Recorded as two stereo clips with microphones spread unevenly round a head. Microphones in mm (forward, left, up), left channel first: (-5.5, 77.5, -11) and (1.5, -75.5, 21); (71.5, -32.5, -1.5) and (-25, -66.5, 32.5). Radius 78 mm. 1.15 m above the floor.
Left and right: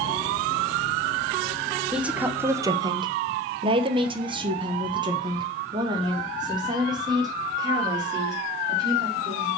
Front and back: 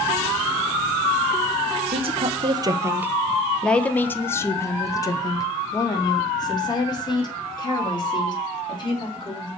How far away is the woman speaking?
About 0.8 m.